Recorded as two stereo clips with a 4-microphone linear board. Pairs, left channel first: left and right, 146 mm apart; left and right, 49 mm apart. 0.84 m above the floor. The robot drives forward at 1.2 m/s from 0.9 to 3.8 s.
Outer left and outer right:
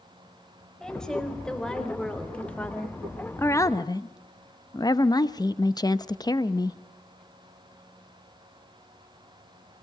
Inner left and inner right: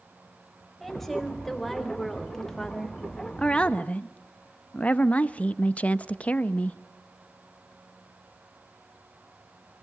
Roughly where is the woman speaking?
Centre.